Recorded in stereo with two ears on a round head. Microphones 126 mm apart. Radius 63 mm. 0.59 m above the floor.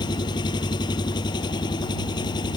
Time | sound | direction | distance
0.0 | an engine running | 30° left (ahead or behind) | ?